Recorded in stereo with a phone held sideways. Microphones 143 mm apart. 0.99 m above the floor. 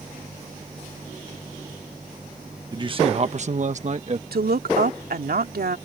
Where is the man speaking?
30° right (ahead or behind); by 4.2 s 45° right (ahead or behind).